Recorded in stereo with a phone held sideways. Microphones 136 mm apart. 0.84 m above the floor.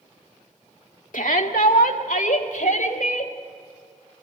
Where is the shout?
75° left (ahead or behind), 1.7 m.